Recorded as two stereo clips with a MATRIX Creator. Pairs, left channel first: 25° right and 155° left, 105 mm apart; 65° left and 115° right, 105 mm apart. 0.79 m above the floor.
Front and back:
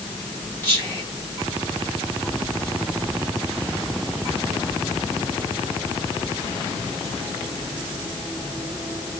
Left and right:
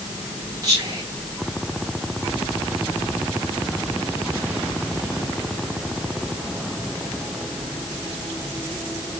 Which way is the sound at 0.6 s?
85° right.